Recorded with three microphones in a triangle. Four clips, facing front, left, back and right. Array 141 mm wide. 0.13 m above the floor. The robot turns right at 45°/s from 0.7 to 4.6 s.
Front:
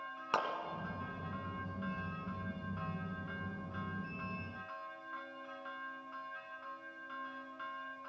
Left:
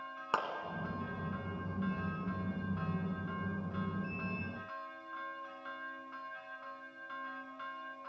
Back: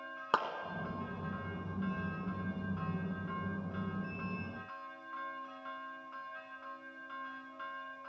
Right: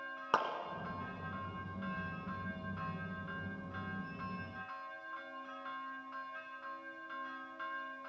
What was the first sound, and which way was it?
A clap, 165° right.